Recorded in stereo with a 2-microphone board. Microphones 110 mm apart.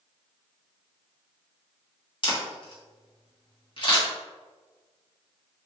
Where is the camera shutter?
45° left (ahead or behind), 1.2 m.